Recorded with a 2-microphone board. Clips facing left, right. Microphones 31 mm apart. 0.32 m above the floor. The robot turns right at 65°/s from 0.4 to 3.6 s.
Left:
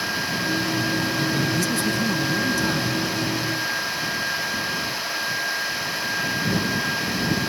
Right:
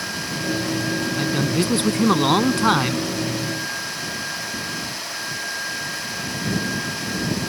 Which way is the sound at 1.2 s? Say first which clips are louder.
Right 1 dB; 160° right.